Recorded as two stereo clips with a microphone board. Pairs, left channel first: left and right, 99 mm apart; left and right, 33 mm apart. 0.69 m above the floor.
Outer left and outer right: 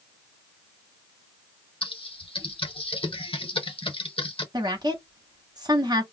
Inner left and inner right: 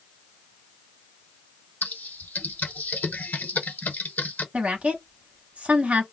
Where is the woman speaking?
40° right (ahead or behind), 1.1 m.